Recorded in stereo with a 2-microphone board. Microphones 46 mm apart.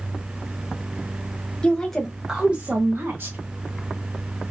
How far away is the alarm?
I don't hear an alarm.